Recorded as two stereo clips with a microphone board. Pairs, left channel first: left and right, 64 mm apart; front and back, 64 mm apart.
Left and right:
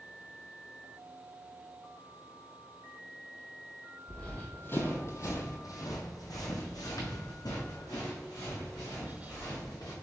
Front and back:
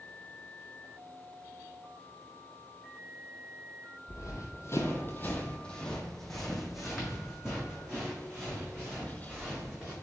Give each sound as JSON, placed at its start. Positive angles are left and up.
{"t": 4.1, "sound": "running footsteps", "azimuth_deg": 15, "distance_m": 0.9}